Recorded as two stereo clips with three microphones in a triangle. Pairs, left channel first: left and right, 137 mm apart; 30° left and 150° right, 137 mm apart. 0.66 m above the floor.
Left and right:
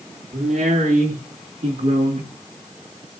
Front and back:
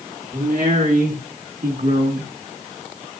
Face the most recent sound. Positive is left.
turn(degrees=-130)